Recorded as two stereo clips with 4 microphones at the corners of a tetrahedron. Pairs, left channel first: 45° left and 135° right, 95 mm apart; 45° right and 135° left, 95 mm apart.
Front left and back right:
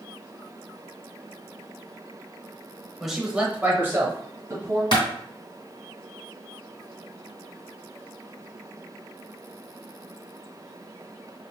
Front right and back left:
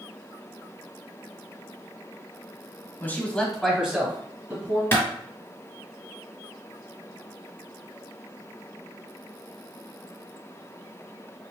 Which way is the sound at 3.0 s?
50° right.